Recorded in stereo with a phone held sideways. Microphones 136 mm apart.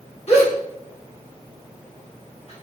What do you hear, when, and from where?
0.3 s a gasp: 50° left (ahead or behind), 1.5 m